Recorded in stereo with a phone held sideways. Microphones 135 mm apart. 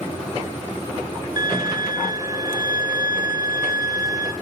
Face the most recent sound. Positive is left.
turn(degrees=-30)  # may be behind; listen again after turning